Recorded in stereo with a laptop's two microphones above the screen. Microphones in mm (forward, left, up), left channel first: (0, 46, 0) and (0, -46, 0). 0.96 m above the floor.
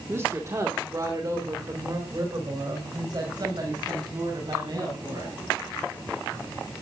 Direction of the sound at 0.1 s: 25° right (ahead or behind).